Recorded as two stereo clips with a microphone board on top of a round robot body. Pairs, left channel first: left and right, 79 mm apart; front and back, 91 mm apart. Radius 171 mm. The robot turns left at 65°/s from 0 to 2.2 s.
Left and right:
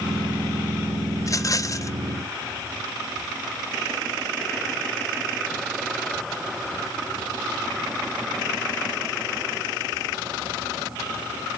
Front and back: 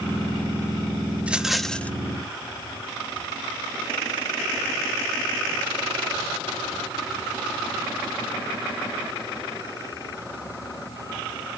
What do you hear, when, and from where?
1.2 s a rattle: 115° left, 1.3 m; by 1.9 s 65° left, 1.3 m